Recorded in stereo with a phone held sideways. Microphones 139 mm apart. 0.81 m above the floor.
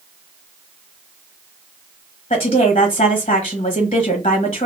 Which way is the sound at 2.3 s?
40° left (ahead or behind).